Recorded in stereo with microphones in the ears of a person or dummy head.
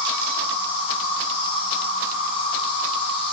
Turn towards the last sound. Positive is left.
turn(degrees=35)  # may be behind; listen again after turning